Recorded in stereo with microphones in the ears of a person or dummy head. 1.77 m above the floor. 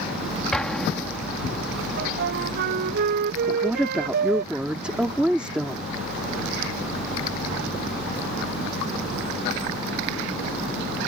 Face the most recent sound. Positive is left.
turn(degrees=-10)  # may be behind; listen again after turning